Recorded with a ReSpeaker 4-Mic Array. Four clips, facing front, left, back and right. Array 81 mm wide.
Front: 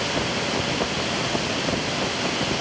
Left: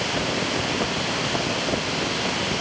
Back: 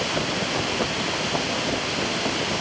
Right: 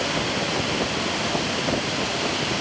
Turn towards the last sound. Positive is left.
No sound to turn to.